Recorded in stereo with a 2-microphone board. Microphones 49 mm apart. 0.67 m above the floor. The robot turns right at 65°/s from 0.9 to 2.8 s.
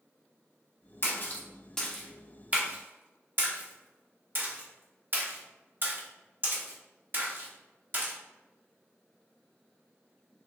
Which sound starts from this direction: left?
A splash, at 1.0 s.